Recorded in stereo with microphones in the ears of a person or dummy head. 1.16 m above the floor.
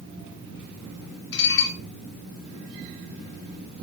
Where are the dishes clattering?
75° left (ahead or behind), 3 m.